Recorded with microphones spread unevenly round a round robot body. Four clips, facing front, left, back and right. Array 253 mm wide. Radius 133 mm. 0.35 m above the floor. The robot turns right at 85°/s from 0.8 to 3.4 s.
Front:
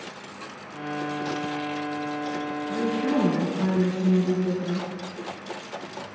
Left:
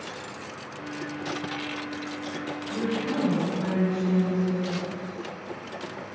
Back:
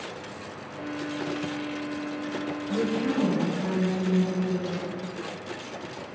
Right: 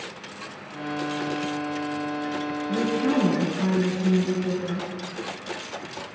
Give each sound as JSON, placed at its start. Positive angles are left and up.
{"t": 2.7, "sound": "a woman speaking", "azimuth_deg": -85, "distance_m": 4.5}